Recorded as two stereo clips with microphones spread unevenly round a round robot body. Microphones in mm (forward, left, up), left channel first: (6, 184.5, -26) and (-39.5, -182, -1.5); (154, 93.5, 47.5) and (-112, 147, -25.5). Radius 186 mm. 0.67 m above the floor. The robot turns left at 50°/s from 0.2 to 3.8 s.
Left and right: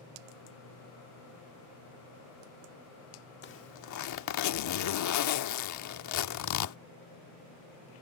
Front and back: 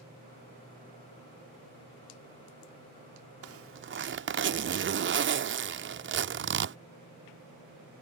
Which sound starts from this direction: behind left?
A zipper, at 3.4 s.